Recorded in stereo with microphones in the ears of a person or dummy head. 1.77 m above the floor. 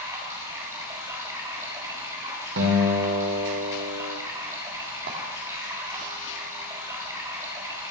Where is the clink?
50° right (ahead or behind), 3 m.